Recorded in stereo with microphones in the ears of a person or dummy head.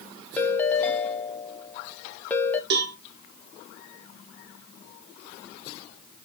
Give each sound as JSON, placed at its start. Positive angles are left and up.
{"t": 0.4, "sound": "a ringtone", "side_deg": 15, "distance_m": 0.7}
{"t": 2.7, "sound": "a cowbell", "side_deg": -60, "distance_m": 0.9}